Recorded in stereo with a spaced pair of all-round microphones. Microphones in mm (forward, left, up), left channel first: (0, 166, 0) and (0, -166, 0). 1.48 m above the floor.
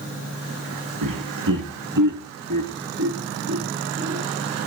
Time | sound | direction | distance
1.0 | laughter | 80° right | 1.6 m